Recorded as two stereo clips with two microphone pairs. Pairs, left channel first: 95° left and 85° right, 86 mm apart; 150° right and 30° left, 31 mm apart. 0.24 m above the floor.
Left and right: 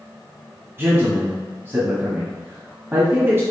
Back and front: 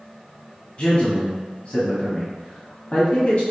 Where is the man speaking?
135° right, 1.2 m.